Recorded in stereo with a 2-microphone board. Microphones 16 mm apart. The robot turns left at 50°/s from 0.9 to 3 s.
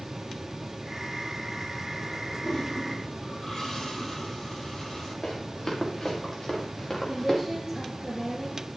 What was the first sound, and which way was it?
A toilet flushing, 50° left (ahead or behind).